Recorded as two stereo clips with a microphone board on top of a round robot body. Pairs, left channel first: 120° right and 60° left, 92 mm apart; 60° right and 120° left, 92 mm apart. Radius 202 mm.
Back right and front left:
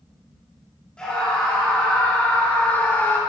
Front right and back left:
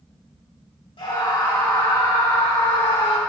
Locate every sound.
1.0 s a scream: 40° right, 4 m; by 3.2 s 55° right, 2.0 m